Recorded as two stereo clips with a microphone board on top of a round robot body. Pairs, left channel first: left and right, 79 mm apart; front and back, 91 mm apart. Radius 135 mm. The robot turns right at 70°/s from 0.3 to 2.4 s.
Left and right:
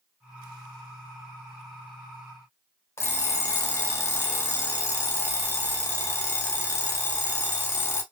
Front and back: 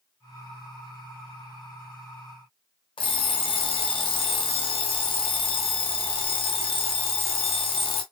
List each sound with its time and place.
3.0 s an alarm clock: 30° left, 1.1 m